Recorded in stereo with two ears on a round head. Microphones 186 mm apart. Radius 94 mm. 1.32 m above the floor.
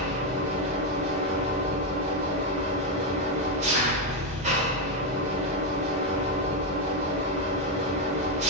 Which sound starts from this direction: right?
An engine running, at 0.0 s.